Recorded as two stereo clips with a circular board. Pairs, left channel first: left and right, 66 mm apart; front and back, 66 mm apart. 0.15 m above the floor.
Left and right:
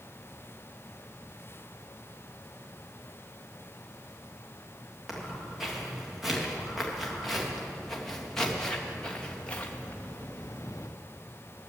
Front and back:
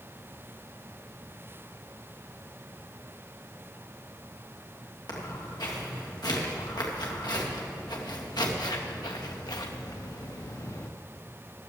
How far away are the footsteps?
About 4.5 m.